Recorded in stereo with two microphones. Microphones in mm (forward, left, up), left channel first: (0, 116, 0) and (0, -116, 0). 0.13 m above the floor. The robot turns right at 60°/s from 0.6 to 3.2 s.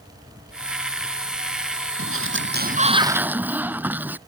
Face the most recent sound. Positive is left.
turn(degrees=-10)